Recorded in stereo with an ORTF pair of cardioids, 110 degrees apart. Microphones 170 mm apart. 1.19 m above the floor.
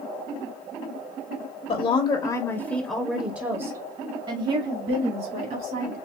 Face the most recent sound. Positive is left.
turn(degrees=-55)